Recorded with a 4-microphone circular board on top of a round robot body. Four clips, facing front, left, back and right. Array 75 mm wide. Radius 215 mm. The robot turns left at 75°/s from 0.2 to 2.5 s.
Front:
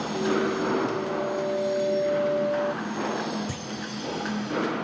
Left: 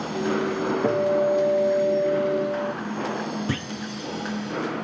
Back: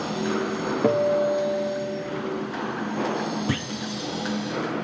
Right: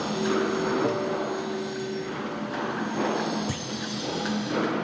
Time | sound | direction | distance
0.8 | a guitar | 155° left | ?
3.5 | a clunk | 140° left | ?